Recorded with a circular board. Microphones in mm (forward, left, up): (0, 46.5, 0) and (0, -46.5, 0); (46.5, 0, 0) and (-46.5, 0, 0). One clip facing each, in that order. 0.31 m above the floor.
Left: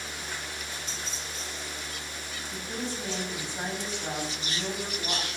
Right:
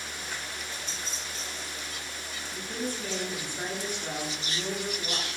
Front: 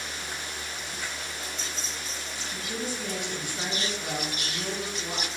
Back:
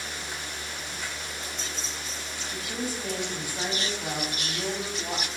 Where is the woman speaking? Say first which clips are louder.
Right 1 dB, back 1 dB; 145° left, 2 m.